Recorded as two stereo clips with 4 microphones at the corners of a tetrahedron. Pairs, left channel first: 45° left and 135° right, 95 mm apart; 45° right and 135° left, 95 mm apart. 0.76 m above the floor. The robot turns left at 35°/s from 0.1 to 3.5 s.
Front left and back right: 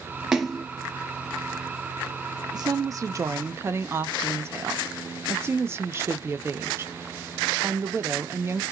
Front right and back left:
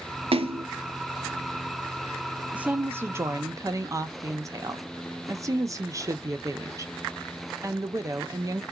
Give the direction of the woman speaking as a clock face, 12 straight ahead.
5 o'clock.